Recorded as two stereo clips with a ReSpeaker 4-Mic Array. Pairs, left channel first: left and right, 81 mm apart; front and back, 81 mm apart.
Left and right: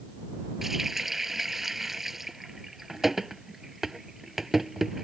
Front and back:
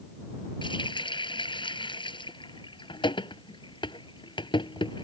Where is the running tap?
5° right.